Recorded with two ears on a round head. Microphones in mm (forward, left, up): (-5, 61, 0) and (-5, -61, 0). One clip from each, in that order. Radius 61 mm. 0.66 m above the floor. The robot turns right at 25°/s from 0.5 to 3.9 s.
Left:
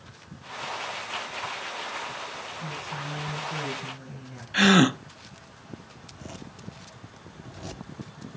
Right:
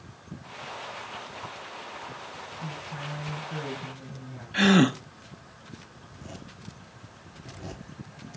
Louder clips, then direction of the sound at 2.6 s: Left 2 dB; 65° left.